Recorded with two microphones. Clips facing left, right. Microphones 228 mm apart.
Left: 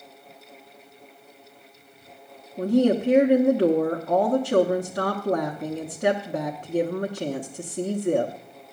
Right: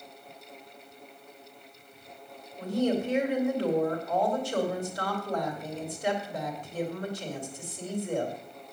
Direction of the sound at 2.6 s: 75° left (ahead or behind).